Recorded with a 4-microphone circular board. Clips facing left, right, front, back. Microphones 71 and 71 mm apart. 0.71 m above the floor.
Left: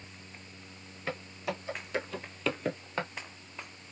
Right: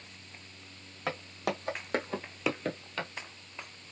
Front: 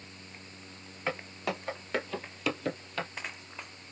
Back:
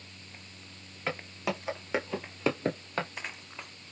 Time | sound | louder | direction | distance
1.1 | footsteps | right 2 dB, even | 90° right | 1.9 m